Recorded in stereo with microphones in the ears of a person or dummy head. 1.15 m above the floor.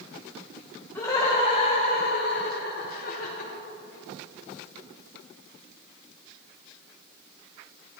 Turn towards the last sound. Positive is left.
turn(degrees=40)  # may be behind; listen again after turning